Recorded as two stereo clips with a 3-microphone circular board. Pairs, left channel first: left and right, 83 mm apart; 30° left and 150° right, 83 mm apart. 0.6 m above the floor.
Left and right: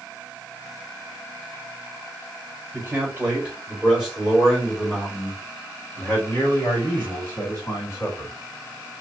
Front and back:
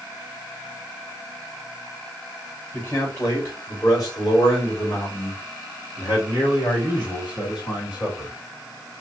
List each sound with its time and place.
2.7 s a man speaking: 30° right, 1.7 m; by 8.3 s 45° left, 3 m